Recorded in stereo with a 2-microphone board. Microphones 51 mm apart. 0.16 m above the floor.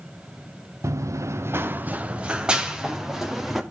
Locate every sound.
0.8 s running footsteps: 70° right (ahead or behind), 0.8 m; by 3.6 s 5° right (ahead or behind), 3 m